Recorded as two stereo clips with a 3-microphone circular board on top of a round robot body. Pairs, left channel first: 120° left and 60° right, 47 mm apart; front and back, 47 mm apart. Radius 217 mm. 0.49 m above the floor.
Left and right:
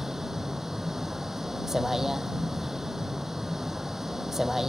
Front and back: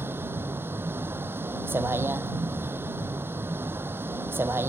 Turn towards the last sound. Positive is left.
turn(degrees=-140)